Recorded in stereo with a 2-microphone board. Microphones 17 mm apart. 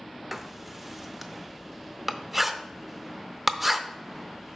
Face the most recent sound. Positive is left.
turn(degrees=-10)  # may be behind; listen again after turning